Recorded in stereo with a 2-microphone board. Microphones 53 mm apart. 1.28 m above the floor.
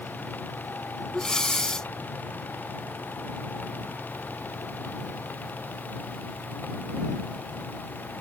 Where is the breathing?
15° left (ahead or behind).